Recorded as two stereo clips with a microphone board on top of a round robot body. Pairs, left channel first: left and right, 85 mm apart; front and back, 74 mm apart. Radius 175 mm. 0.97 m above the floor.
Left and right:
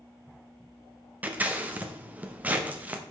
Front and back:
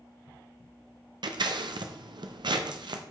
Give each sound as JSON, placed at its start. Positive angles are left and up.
{"t": 1.2, "sound": "scissors", "azimuth_deg": -160, "distance_m": 0.9}